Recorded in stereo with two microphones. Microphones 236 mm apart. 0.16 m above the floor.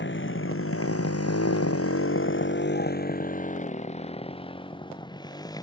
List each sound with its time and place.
0.0 s a motorcycle: 50° left (ahead or behind); by 5.6 s 15° left (ahead or behind)